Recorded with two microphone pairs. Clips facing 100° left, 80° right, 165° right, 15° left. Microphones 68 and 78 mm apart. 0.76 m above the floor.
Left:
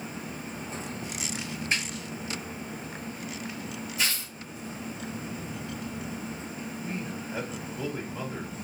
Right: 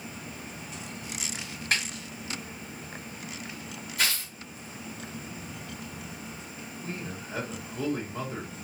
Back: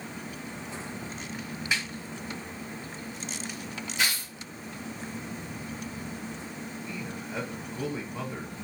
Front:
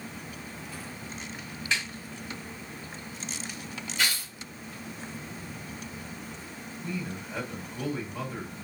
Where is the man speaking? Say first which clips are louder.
Left 1 dB, front 6 dB; 90° right, 2 m.